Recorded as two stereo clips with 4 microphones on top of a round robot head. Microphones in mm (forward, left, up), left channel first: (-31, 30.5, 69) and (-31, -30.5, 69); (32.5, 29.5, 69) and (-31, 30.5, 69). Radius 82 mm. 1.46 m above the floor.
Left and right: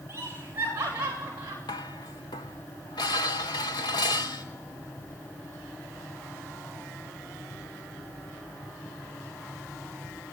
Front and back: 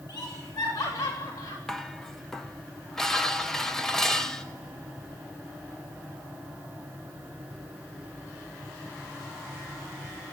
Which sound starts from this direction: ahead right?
Laughter, at 0.1 s.